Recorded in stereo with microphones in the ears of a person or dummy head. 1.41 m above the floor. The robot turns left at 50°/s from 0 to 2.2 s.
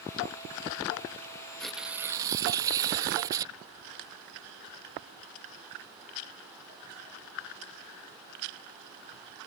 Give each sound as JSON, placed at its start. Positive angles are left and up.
{"t": 1.6, "sound": "tearing paper", "azimuth_deg": 0}